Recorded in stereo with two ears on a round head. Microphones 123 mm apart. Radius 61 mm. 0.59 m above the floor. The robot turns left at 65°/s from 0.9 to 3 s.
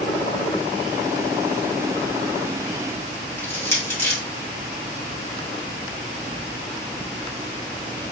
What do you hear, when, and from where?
3.4 s crushing: 20° left (ahead or behind), 2.0 m